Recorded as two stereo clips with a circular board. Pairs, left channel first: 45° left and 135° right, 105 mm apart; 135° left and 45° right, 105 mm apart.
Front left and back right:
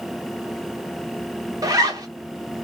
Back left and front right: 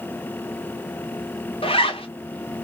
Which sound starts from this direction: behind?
A zipper, at 1.6 s.